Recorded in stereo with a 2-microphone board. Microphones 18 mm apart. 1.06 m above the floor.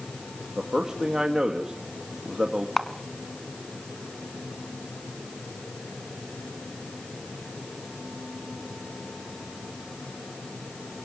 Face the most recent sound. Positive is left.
turn(degrees=15)  # may be behind; listen again after turning